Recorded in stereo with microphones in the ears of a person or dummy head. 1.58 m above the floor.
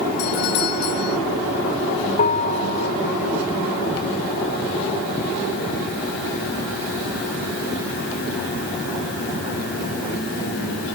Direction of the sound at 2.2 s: 45° left (ahead or behind).